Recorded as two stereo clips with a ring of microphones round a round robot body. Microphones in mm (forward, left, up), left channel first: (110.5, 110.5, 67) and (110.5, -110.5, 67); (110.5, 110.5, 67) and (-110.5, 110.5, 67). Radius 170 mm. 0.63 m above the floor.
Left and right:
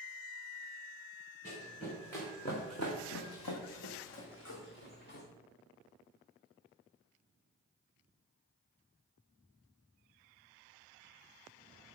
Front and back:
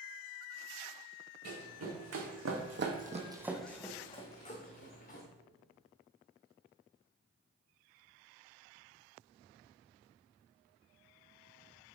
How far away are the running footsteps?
About 2.5 m.